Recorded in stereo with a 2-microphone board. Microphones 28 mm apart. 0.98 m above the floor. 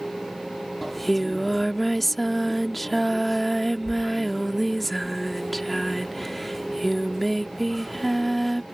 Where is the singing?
5° left (ahead or behind).